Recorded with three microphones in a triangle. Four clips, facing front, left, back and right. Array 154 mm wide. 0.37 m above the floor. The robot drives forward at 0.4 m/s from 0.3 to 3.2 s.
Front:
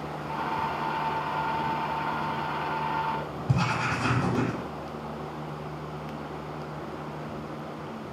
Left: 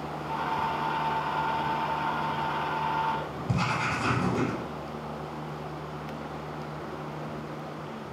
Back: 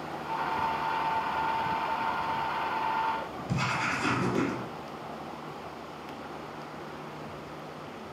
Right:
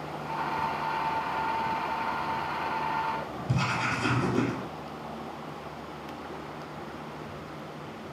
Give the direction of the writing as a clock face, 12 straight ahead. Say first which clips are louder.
Left 1 dB, front 3 dB; 11 o'clock.